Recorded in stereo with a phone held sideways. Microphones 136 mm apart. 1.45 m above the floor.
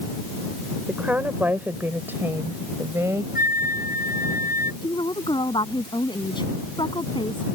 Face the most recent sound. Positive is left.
turn(degrees=35)  # may be behind; listen again after turning